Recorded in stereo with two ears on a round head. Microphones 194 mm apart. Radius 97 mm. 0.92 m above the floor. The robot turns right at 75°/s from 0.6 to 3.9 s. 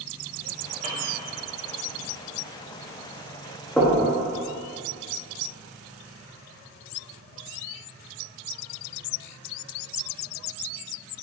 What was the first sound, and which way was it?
A piano, 35° right (ahead or behind).